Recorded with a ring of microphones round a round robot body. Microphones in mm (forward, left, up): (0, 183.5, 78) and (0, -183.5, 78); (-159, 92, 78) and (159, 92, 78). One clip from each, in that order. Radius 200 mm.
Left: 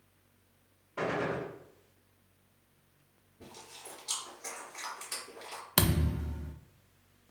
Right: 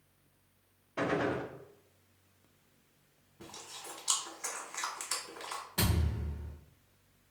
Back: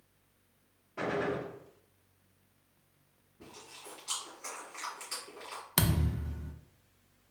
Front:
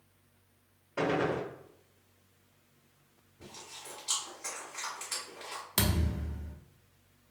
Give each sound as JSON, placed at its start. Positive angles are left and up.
{"t": 1.0, "sound": "a gunshot", "azimuth_deg": -20, "distance_m": 0.8}
{"t": 3.4, "sound": "chewing", "azimuth_deg": -110, "distance_m": 1.5}
{"t": 5.8, "sound": "a thud", "azimuth_deg": 115, "distance_m": 0.5}